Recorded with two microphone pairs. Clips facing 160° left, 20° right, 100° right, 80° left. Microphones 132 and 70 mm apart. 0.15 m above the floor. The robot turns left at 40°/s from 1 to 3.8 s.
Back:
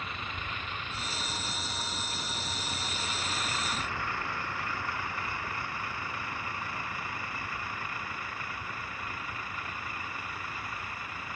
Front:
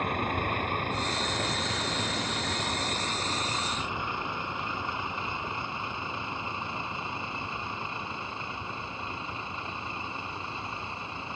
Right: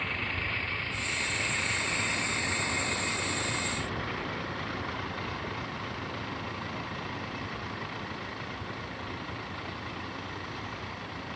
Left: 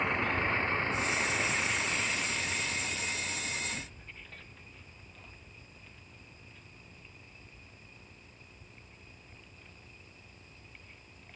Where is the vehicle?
15° left; by 11.4 s 85° right.